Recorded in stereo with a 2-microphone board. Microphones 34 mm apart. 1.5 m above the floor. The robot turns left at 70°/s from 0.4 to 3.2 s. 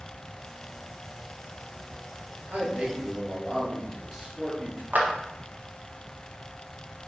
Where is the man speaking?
120° right, 3 m; by 4.8 s 170° right, 3 m.